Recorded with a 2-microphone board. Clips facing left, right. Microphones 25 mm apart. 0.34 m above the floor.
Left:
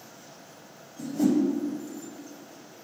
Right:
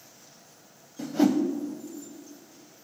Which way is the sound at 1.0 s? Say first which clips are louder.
Right 1 dB; 50° right (ahead or behind).